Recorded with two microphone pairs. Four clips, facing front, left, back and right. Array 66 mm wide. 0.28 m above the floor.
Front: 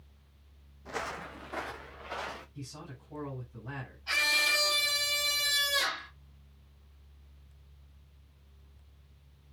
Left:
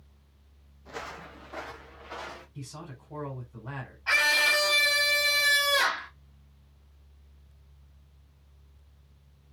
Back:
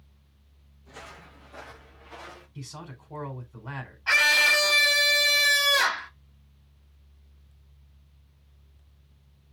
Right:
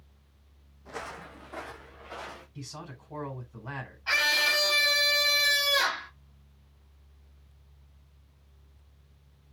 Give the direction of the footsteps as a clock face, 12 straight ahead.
12 o'clock.